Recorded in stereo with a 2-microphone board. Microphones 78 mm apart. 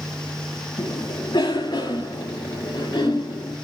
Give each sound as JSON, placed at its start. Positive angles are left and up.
{"t": 0.8, "sound": "a cough", "side_deg": 55, "distance_m": 3.0}